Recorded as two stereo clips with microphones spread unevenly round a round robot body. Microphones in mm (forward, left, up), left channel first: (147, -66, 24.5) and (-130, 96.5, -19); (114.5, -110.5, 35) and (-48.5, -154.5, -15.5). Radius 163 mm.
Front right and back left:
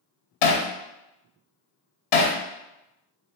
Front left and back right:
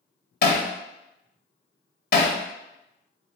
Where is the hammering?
15° right, 0.8 m.